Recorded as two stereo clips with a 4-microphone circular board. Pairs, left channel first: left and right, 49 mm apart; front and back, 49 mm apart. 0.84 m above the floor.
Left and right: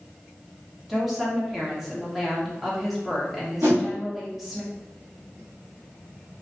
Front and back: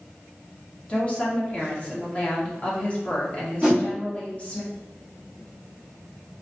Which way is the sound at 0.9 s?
10° right.